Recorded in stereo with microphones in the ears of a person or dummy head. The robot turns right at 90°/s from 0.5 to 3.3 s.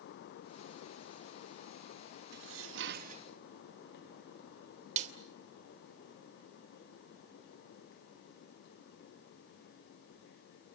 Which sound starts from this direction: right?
A snare drum, at 5.0 s.